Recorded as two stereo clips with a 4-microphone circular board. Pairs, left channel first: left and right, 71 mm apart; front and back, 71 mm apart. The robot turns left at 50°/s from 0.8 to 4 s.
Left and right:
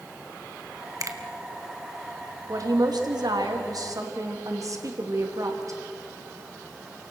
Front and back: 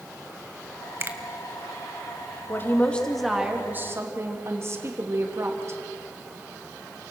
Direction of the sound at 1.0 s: 125° right.